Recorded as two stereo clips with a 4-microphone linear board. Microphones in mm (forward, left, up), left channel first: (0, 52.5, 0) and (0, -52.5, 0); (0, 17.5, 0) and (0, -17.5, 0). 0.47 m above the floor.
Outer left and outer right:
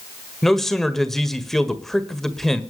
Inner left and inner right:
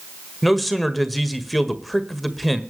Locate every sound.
0.4 s a man speaking: 5° left (ahead or behind), 1.6 m